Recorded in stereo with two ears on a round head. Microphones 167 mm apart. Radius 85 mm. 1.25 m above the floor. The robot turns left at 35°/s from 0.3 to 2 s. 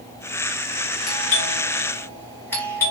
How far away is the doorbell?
About 4 m.